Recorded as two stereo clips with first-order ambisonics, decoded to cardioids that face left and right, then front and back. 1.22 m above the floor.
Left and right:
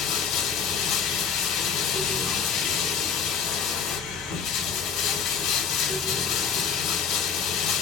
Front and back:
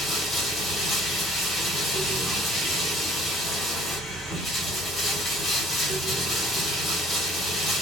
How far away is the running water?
About 1.8 m.